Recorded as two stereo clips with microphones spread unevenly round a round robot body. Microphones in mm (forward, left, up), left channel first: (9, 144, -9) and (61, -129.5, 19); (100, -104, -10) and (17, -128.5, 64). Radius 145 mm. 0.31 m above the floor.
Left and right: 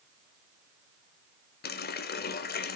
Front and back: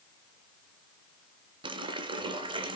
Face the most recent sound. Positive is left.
turn(degrees=115)